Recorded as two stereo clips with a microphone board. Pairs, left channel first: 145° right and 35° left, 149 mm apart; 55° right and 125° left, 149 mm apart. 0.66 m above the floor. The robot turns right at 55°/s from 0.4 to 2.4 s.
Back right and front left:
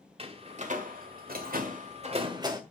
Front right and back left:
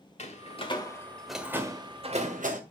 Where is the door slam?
15° right, 1.6 m; by 2.6 s 95° left, 1.6 m.